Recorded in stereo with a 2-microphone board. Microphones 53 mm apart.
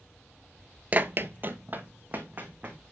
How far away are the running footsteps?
About 0.5 m.